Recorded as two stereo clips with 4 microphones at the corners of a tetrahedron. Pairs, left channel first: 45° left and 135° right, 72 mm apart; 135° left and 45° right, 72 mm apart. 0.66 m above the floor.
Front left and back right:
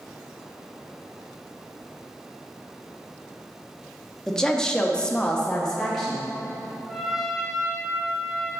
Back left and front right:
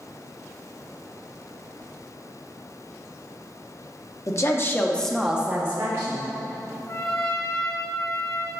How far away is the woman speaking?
About 1.0 m.